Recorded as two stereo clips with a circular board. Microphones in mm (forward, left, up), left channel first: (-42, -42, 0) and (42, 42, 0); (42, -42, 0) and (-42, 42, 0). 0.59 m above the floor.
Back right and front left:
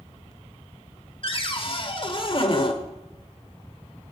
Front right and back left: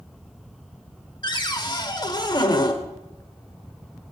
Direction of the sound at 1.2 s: 95° right.